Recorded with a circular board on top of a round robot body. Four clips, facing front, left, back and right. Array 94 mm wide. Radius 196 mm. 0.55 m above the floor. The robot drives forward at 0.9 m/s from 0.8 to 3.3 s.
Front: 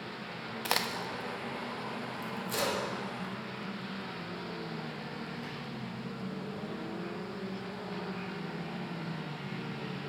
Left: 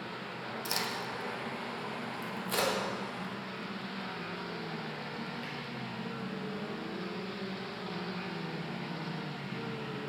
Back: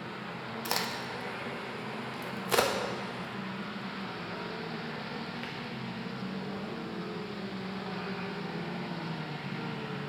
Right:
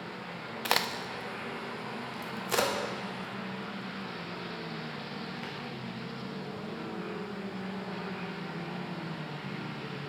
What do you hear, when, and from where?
0.7 s a crack: 65° right, 0.8 m; by 5.5 s 165° right, 2 m